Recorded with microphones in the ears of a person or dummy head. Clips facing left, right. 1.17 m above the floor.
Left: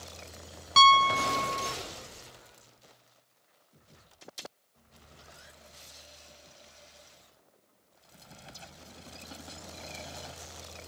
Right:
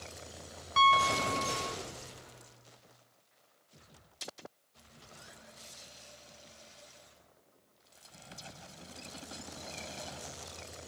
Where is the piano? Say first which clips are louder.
Left 4 dB; 60° left (ahead or behind), 0.7 m.